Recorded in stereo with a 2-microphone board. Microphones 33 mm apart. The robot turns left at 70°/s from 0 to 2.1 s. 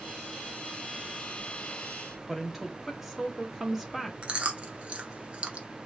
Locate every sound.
2.3 s a woman speaking: 10° right (ahead or behind), 0.7 m
4.2 s chewing: 35° right (ahead or behind), 0.5 m